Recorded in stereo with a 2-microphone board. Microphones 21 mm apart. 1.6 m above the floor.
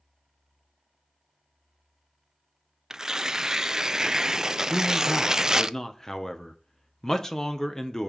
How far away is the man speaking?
About 1.6 m.